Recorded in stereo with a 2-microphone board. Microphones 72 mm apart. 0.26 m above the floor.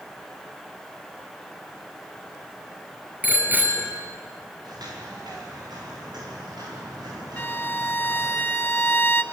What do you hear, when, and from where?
3.2 s a bicycle bell: 25° right (ahead or behind), 3 m
4.6 s footsteps: 70° right (ahead or behind), 10 m
7.4 s a violin: 25° left (ahead or behind), 0.7 m